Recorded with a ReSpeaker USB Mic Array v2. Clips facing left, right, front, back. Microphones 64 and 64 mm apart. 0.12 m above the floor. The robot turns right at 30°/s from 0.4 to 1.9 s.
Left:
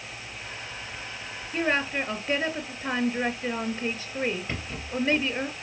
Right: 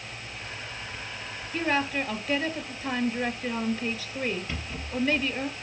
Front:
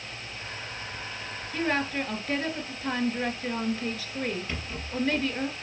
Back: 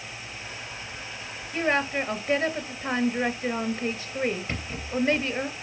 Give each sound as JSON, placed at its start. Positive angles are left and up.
{"t": 1.5, "sound": "a woman speaking", "azimuth_deg": 120, "distance_m": 1.8}
{"t": 4.5, "sound": "a rattle", "azimuth_deg": 125, "distance_m": 3.5}